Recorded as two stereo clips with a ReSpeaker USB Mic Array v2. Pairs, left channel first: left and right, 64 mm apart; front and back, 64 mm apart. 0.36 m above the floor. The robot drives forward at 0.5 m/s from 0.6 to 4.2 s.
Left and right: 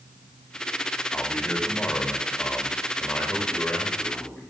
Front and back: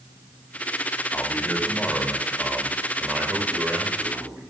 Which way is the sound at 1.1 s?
40° left.